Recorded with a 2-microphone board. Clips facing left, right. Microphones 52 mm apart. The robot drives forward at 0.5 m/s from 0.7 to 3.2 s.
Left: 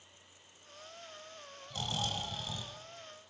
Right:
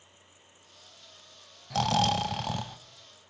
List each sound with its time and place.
1.7 s snoring: 80° right, 0.8 m; by 2.8 s 60° right (ahead or behind), 0.9 m